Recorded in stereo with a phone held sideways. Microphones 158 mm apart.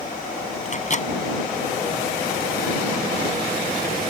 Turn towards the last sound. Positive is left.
turn(degrees=50)  # may be behind; listen again after turning